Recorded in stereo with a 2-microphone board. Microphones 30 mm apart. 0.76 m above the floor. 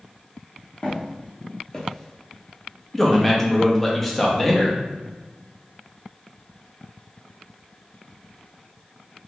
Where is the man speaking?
10° left (ahead or behind), 0.7 m.